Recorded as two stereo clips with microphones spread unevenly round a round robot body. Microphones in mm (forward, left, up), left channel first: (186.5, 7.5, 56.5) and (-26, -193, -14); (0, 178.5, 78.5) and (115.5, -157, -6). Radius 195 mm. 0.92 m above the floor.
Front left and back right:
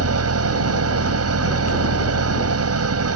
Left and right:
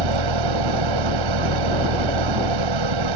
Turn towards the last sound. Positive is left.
turn(degrees=-95)